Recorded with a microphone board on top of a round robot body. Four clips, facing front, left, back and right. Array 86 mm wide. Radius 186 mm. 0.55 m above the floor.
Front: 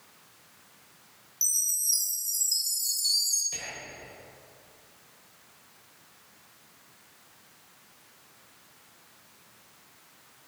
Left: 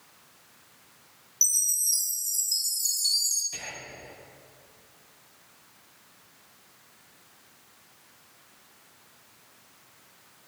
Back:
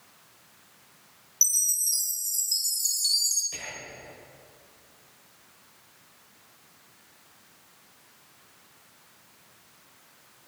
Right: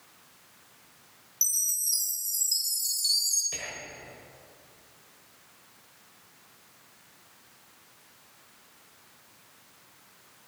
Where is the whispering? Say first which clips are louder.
Right 1 dB, back 1 dB; 95° right, 4 m.